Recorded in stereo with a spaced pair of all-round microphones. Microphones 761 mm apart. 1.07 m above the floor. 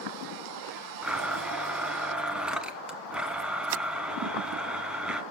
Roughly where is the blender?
Centre.